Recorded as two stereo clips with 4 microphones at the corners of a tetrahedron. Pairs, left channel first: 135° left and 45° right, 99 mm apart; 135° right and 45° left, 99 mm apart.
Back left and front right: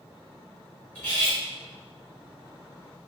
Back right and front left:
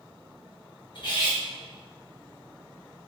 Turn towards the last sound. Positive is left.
turn(degrees=-155)